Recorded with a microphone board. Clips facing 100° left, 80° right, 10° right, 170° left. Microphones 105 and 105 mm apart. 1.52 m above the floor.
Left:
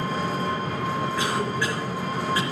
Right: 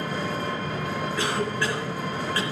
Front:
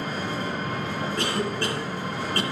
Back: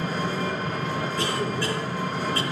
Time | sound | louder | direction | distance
0.0 | an engine running | left 2 dB, back 2 dB | 120° left | 3 m
1.2 | a cough | left 1 dB, front 1 dB | 20° left | 2 m